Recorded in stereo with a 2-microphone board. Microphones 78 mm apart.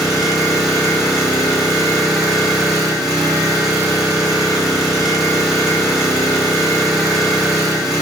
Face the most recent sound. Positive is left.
turn(degrees=-5)  # may be behind; listen again after turning